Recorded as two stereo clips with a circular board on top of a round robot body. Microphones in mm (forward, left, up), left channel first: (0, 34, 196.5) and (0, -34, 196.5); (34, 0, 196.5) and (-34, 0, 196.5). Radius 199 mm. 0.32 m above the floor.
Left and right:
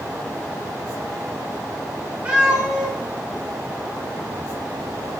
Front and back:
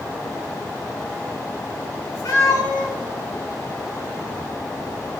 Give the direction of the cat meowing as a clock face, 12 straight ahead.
1 o'clock.